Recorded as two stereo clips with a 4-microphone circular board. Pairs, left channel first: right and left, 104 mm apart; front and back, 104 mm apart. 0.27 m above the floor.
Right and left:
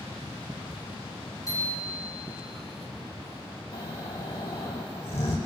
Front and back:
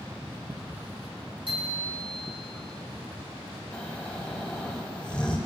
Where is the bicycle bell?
150° right, 6.5 m.